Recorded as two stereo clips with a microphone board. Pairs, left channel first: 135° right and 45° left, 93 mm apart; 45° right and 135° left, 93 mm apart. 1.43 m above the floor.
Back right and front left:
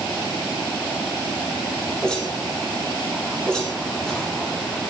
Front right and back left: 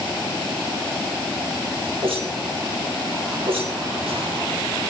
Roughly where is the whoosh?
Behind left.